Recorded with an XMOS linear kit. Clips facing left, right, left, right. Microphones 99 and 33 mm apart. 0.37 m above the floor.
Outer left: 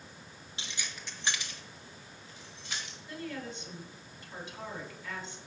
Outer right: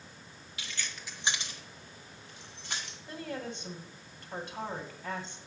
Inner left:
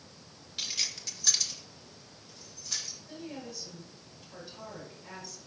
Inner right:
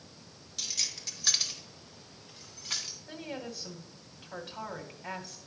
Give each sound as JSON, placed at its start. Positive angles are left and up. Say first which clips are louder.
{"t": 0.6, "sound": "keys jangling", "louder": "outer right 1 dB, inner left 2 dB", "side_deg": 30, "distance_m": 1.3}
{"t": 3.1, "sound": "a woman speaking", "louder": "outer right 1 dB, inner right 3 dB", "side_deg": -60, "distance_m": 2.5}